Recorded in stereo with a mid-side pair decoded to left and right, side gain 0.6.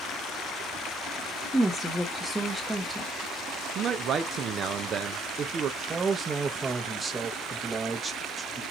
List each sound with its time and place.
1.5 s a woman speaking: straight ahead, 1.2 m
3.8 s a man speaking: 45° right, 0.6 m
5.8 s a man speaking: 25° right, 1.0 m